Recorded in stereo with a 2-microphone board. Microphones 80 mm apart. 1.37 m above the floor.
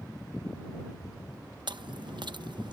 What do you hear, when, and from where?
1.7 s chewing: 70° right (ahead or behind)